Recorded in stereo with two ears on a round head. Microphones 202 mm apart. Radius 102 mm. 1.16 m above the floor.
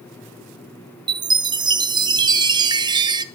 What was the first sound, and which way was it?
A chime, 20° right (ahead or behind).